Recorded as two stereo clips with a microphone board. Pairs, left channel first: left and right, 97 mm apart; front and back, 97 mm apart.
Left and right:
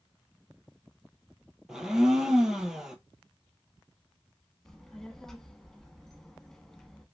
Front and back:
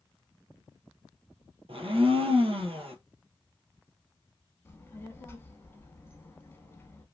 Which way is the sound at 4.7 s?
10° left.